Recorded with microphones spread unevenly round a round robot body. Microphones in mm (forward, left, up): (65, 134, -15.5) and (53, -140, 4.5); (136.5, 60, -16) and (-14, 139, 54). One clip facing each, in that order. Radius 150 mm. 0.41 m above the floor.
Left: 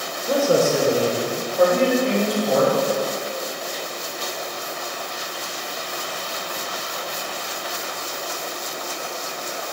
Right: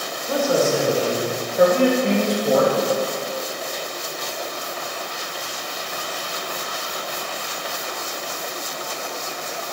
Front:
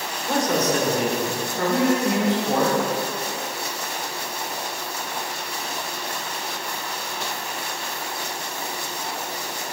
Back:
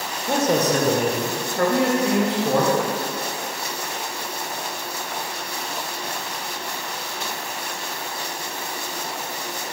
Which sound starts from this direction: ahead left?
A man speaking, at 0.3 s.